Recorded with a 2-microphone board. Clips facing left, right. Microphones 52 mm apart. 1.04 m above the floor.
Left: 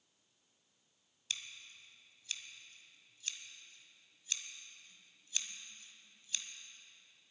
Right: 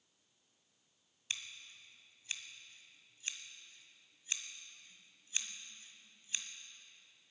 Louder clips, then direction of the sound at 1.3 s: Right 1 dB; 25° right (ahead or behind).